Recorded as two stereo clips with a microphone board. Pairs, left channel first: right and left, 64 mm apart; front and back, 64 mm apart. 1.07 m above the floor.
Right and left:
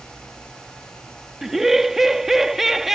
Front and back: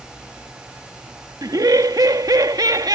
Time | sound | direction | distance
1.4 | laughter | 175° left | ?